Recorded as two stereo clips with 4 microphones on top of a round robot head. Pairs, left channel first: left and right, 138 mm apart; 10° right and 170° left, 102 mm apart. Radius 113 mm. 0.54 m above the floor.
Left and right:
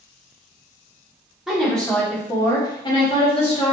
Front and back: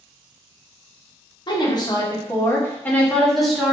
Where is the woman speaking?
5° right, 1.3 m; by 3.8 s 85° left, 1.4 m.